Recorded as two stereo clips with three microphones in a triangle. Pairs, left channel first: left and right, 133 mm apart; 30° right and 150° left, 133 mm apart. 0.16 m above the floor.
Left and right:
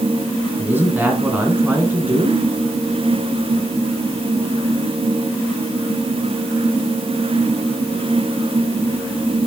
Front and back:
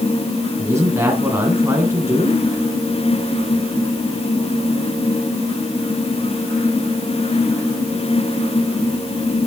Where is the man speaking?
155° right, 1.8 m.